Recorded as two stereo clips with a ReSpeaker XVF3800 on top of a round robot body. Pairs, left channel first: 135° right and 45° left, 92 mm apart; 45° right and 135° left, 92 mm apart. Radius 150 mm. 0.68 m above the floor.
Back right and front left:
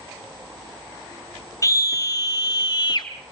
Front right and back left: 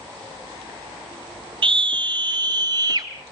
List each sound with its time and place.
1.6 s a scream: 170° left, 4 m; by 3.1 s 175° right, 3.5 m